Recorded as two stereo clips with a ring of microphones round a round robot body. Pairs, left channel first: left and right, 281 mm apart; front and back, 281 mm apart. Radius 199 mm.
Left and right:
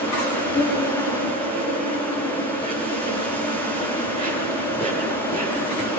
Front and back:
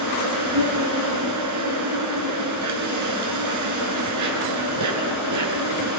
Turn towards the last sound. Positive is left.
turn(degrees=165)